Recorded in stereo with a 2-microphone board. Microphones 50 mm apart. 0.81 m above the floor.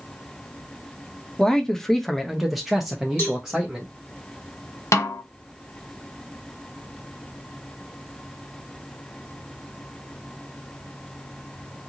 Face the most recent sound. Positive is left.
turn(degrees=70)  # may be behind; listen again after turning